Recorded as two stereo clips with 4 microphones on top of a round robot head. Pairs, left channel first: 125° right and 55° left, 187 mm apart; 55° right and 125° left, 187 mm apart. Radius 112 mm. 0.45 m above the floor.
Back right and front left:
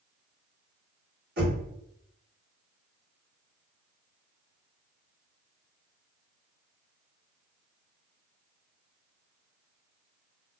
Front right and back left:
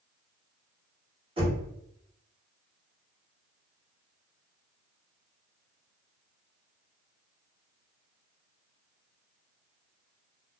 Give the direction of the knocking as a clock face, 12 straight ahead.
10 o'clock.